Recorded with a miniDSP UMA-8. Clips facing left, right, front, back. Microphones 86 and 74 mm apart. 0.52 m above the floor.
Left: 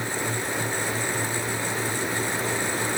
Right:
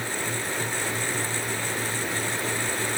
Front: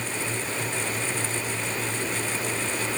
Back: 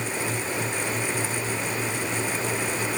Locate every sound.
Only background noise.